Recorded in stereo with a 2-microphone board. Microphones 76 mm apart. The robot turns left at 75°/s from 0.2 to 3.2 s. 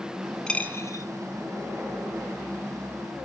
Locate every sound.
0.5 s a dropped coin: 10° left (ahead or behind), 2 m; by 1.0 s 55° left (ahead or behind), 2 m